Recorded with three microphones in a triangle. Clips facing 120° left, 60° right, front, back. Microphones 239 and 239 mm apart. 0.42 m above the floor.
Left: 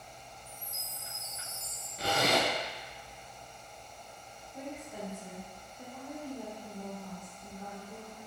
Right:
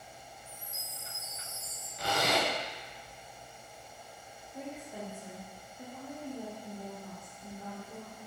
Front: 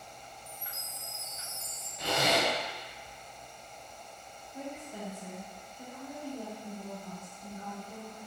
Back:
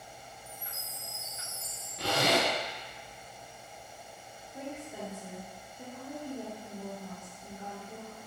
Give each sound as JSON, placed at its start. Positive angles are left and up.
{"t": 0.5, "sound": "a chime", "azimuth_deg": 150, "distance_m": 2.0}
{"t": 2.0, "sound": "a zipper", "azimuth_deg": 175, "distance_m": 0.6}
{"t": 4.5, "sound": "a woman speaking", "azimuth_deg": -125, "distance_m": 0.8}